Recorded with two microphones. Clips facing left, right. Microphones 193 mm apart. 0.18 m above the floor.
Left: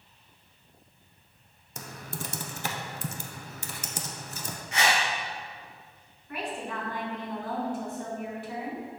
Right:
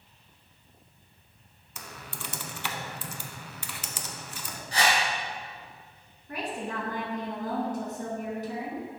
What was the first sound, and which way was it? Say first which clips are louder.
Typing on a keyboard: left 4 dB; 40° left (ahead or behind).